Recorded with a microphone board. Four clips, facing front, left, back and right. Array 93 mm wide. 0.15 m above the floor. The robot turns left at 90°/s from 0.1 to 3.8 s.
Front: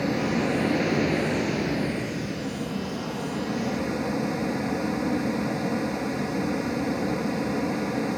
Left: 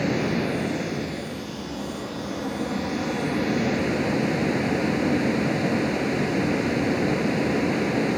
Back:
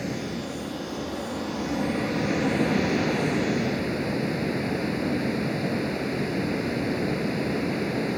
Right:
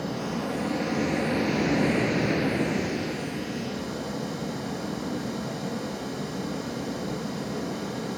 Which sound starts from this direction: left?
Running water, at 0.0 s.